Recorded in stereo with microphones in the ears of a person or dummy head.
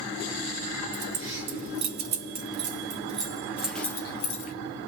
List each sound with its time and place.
0.9 s keys jangling: 70° right (ahead or behind), 1.7 m; by 4.5 s 40° left (ahead or behind), 0.8 m